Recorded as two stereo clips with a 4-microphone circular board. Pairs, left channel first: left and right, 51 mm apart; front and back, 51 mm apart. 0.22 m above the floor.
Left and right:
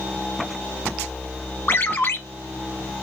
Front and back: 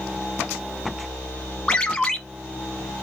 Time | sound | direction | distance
1.7 | a ringtone | 65° left | 1.3 m